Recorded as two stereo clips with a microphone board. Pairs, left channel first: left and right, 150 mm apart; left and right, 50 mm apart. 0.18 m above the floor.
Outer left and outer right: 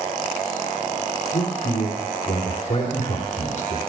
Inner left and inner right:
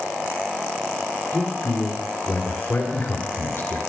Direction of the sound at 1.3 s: 55° left (ahead or behind).